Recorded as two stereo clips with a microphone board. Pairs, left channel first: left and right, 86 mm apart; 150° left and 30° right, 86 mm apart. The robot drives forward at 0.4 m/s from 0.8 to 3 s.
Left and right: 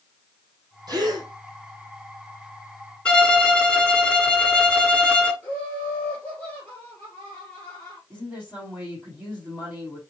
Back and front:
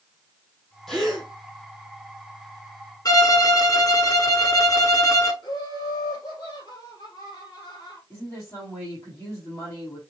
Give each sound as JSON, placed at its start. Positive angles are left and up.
{"t": 0.9, "sound": "a gasp", "azimuth_deg": -125, "distance_m": 3.0}
{"t": 3.0, "sound": "a violin", "azimuth_deg": 160, "distance_m": 0.9}
{"t": 5.4, "sound": "laughter", "azimuth_deg": 165, "distance_m": 3.5}
{"t": 8.1, "sound": "a woman speaking", "azimuth_deg": -155, "distance_m": 4.0}